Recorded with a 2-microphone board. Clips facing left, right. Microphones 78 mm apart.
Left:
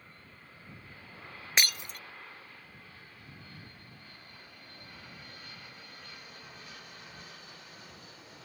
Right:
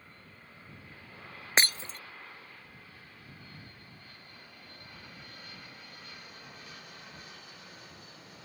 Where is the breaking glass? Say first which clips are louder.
Right 2 dB; 30° right (ahead or behind).